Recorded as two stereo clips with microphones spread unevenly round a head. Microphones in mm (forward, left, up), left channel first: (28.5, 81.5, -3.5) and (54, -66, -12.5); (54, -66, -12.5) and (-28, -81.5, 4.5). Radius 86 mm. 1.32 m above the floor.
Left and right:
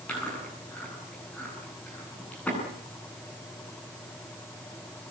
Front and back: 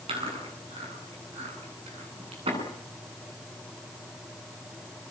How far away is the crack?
I don't hear a crack.